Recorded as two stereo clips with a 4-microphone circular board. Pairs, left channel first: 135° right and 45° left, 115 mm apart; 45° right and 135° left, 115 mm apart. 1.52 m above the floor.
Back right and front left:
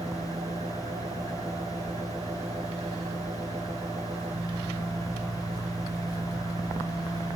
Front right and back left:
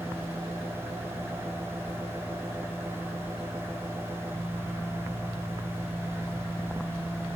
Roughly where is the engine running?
Ahead left.